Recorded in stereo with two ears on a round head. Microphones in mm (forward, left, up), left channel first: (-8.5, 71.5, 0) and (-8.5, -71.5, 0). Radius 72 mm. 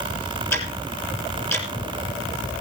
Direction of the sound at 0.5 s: 15° left (ahead or behind).